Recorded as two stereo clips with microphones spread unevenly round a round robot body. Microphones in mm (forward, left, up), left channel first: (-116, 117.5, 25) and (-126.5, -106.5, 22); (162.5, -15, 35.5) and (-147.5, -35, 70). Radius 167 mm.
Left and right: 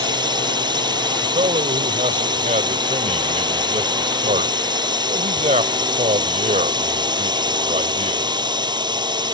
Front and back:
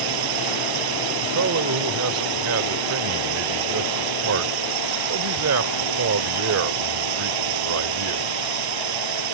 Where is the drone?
165° right.